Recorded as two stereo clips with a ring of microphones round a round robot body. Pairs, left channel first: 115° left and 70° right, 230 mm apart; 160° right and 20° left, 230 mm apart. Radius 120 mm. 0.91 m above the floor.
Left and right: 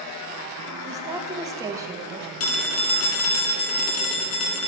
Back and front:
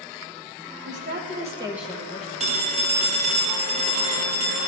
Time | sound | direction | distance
0.8 | a woman speaking | 5° left | 1.3 m
2.4 | a phone ringing | 85° left | 1.0 m